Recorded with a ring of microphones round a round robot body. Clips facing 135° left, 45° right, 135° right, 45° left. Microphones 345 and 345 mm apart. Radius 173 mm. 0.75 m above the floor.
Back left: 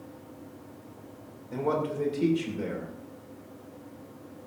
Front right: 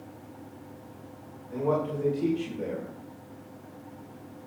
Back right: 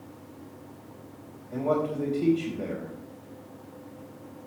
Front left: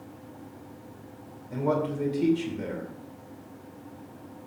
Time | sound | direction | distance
1.5 | a man speaking | 95° left | 3 m